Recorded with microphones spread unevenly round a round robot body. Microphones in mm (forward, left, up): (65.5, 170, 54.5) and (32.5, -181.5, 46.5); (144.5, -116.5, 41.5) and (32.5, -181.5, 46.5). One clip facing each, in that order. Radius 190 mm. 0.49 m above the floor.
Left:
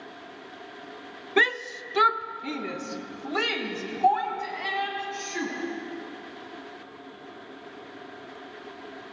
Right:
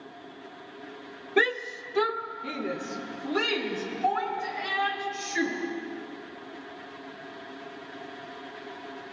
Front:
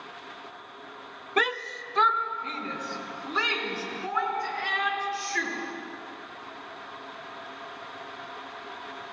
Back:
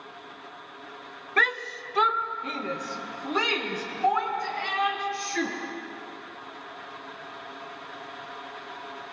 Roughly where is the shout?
Ahead left.